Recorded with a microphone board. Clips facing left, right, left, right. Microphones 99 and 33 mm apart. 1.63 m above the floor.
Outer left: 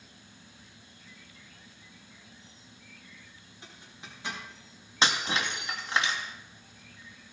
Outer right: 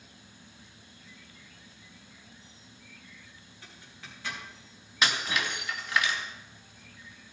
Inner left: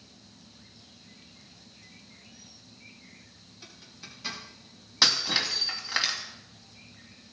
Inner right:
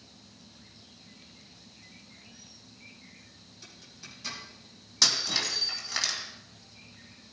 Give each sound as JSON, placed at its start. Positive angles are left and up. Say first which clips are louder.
{"t": 3.6, "sound": "a zipper", "louder": "outer left 1 dB, inner left 2 dB", "side_deg": 20, "distance_m": 4.0}
{"t": 5.0, "sound": "breaking glass", "louder": "outer left 1 dB, inner left 3 dB", "side_deg": 30, "distance_m": 2.5}